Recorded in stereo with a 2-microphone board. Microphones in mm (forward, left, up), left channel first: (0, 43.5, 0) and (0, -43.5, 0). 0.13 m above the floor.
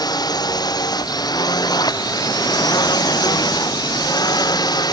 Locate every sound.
0.0 s a drone: 50° left (ahead or behind)